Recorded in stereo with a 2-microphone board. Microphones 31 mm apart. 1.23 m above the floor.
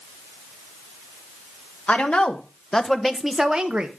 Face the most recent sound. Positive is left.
turn(degrees=-35)  # may be behind; listen again after turning